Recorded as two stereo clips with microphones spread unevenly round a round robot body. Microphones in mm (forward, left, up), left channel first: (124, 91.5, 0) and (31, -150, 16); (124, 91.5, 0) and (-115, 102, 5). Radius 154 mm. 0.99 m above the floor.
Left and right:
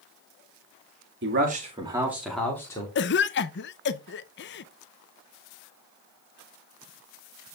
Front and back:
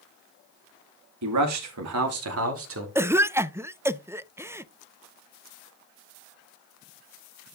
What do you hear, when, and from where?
1.2 s a man speaking: 165° right, 1.9 m; by 2.9 s 145° left, 3 m
3.0 s a cough: 100° left, 0.6 m